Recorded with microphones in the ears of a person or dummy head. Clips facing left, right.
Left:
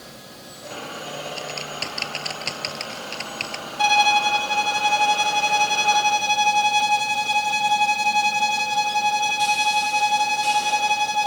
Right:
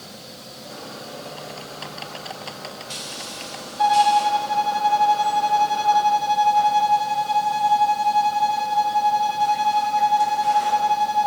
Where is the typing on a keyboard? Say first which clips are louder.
Left 3 dB; 40° left (ahead or behind).